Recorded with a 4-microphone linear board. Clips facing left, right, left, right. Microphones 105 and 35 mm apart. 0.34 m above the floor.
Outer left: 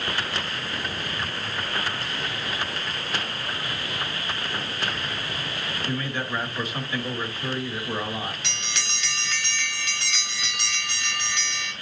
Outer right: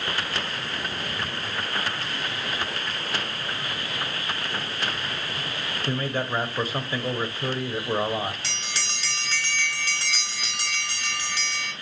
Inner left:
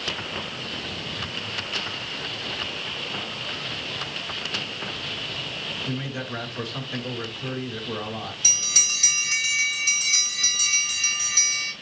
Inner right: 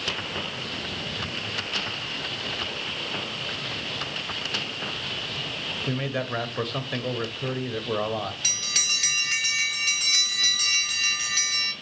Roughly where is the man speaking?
Right.